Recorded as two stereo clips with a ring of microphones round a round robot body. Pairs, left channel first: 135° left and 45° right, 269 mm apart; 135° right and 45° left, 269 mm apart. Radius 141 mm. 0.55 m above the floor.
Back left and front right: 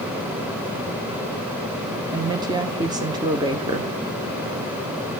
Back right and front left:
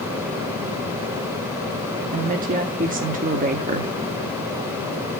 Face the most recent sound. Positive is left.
turn(degrees=20)